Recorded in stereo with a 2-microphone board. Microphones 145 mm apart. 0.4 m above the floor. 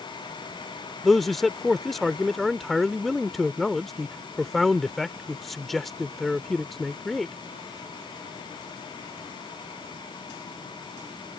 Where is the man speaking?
Centre (ahead or behind).